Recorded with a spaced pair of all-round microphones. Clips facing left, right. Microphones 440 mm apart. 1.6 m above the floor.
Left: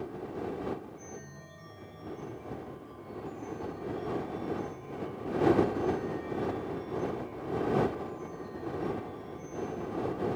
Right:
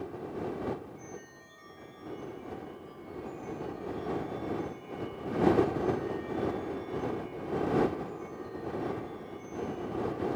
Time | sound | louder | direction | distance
0.9 | a chime | even | 60° left (ahead or behind) | ?